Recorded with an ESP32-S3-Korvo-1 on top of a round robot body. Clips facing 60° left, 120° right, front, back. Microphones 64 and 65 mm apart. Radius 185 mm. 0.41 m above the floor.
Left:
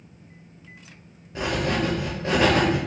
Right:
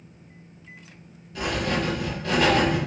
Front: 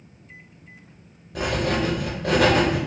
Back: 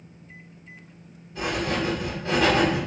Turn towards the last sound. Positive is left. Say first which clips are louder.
# left 1 dB, front 3 dB
turn(degrees=0)